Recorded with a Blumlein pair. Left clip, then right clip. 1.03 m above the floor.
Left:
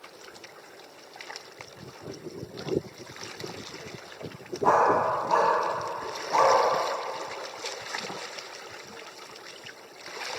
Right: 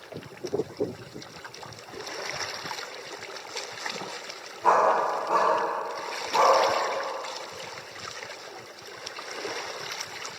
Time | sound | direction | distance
4.6 | a dog barking | 10° left | 3.5 m